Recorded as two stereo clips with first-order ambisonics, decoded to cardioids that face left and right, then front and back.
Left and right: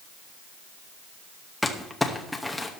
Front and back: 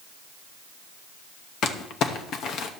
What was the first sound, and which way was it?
Crumpling, 10° left.